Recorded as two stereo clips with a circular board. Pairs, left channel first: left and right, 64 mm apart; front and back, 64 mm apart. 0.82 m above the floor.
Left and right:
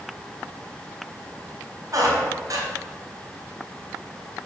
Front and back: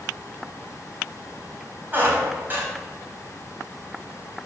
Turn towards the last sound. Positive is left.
turn(degrees=-120)